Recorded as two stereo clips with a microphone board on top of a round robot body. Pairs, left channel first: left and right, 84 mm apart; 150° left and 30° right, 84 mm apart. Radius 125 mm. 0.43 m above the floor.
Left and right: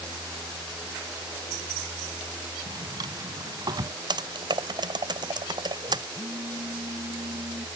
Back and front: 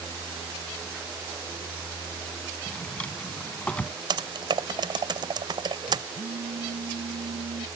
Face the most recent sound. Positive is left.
turn(degrees=-30)